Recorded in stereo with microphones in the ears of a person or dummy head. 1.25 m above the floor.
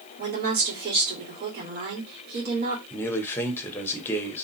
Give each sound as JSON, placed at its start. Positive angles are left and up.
{"t": 0.2, "sound": "a woman speaking", "side_deg": -50, "distance_m": 2.5}
{"t": 2.9, "sound": "a man speaking", "side_deg": 15, "distance_m": 1.1}